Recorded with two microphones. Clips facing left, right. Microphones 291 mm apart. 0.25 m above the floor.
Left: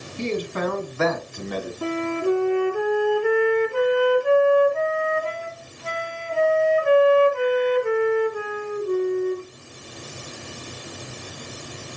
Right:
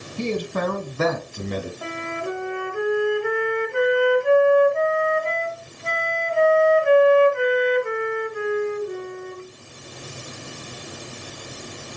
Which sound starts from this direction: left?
A flute, at 1.8 s.